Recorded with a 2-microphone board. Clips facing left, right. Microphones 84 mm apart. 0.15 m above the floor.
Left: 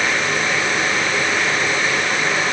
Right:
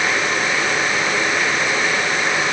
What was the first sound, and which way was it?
Only background noise.